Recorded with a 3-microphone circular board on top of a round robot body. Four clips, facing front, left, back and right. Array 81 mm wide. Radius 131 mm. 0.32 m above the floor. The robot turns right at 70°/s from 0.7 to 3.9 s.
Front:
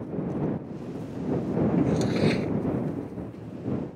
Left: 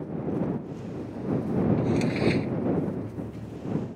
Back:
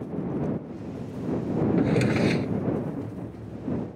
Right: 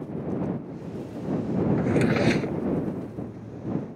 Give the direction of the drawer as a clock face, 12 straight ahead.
4 o'clock.